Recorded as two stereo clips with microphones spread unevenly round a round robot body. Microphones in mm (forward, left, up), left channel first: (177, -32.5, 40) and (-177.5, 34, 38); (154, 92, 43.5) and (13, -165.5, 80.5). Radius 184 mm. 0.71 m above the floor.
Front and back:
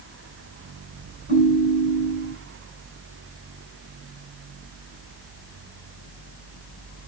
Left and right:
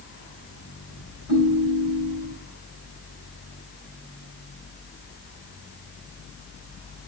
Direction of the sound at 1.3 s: 130° right.